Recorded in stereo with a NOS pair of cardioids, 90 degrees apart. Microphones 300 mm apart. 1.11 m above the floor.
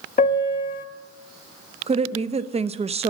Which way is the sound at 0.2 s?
30° left.